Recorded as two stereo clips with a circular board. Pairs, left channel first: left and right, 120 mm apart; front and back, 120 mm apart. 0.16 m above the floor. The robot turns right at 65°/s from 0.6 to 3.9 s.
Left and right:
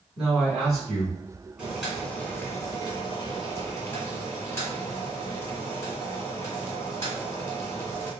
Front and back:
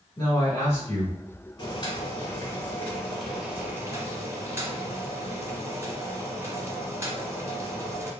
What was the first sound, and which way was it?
A man speaking, 5° right.